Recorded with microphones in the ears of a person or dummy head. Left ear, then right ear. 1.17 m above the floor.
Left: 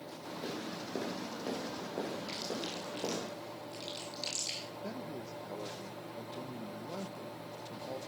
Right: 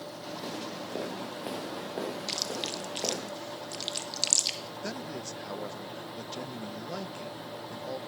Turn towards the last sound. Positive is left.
turn(degrees=-60)  # may be behind; listen again after turning